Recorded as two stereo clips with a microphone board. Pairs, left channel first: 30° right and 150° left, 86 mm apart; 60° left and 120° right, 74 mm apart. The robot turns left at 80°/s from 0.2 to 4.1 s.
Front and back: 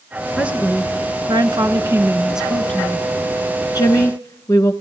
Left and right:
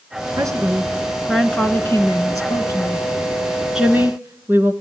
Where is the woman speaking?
130° right, 1.9 m; by 4.7 s 70° right, 1.9 m.